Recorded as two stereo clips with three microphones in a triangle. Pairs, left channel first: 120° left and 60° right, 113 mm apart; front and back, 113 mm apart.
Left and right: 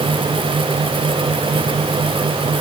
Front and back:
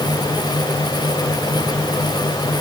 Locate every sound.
Only background noise.